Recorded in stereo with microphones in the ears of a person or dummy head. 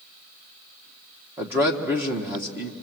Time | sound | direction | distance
1.4 | a man speaking | 15° right (ahead or behind) | 1.3 m